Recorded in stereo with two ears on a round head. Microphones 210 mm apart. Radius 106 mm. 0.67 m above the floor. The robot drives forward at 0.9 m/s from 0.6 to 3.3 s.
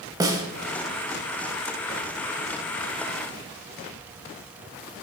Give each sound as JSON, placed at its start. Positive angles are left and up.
{"t": 0.2, "sound": "a snare drum", "side_deg": -15, "distance_m": 0.7}